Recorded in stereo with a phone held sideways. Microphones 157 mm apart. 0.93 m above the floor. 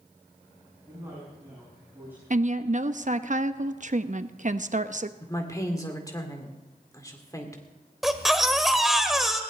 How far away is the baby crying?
About 1.3 m.